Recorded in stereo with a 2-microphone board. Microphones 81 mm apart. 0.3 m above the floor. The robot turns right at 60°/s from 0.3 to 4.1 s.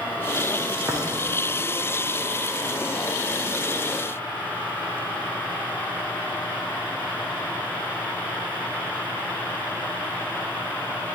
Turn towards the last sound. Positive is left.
turn(degrees=55)